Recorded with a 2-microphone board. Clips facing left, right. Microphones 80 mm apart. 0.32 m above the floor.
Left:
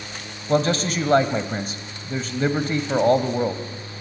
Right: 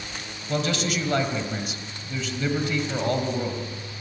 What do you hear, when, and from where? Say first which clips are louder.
0.5 s a man speaking: left 6 dB; 40° left (ahead or behind), 1.4 m